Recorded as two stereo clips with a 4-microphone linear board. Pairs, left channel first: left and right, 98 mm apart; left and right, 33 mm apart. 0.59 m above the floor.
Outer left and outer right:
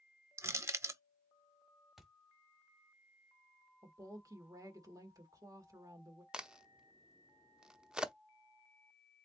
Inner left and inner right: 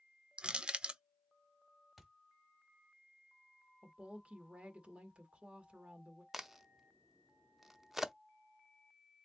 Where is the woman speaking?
35° right (ahead or behind), 1.5 m.